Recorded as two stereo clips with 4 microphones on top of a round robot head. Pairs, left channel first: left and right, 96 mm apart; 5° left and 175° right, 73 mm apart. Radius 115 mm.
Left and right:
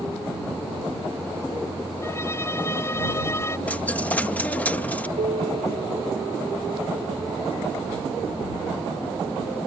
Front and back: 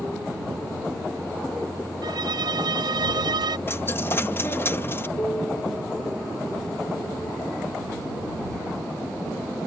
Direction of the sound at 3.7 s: 30° left.